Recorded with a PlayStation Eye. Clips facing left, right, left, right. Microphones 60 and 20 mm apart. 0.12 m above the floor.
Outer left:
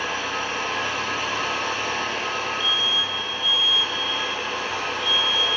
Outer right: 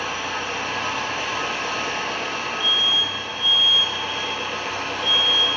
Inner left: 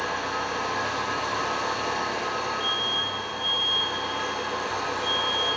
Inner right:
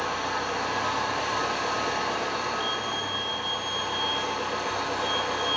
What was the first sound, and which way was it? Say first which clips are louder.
An engine running: even, even; 55° right (ahead or behind).